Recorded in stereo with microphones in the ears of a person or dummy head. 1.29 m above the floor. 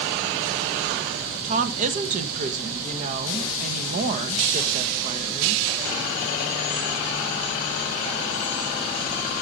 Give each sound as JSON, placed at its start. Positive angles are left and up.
{"t": 1.4, "sound": "a woman speaking", "side_deg": -40, "distance_m": 1.3}